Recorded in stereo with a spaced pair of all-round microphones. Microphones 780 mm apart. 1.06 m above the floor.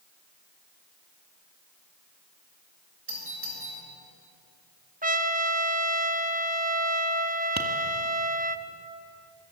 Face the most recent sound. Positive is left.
turn(degrees=-20)  # may be behind; listen again after turning